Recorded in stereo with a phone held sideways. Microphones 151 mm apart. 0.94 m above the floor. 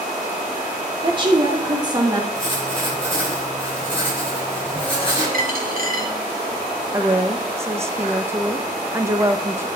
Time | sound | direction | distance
1.0 | a woman speaking | 35° right (ahead or behind) | 2.5 m
2.4 | writing | 35° left (ahead or behind) | 5.5 m
5.3 | a dropped coin | 75° right (ahead or behind) | 1.3 m
6.9 | a woman speaking | 20° right (ahead or behind) | 0.7 m